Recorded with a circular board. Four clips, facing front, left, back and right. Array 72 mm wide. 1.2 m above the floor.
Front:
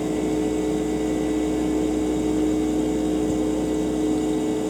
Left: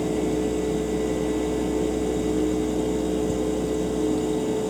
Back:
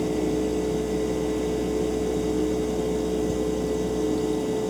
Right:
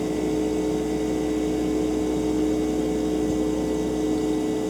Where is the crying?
I don't hear crying.